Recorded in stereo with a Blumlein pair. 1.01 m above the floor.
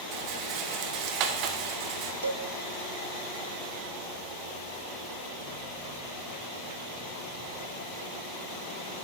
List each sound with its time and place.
0.1 s a rattle: 40° right, 1.0 m
2.2 s a cowbell: 70° right, 0.8 m